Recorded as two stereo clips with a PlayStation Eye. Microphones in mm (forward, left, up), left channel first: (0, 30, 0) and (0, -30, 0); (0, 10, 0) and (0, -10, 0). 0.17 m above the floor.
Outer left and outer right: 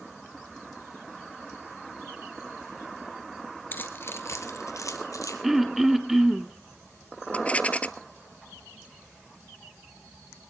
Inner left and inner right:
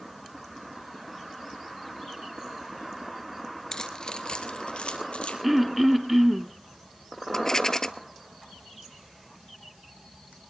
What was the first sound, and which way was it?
Keys jangling, 30° left (ahead or behind).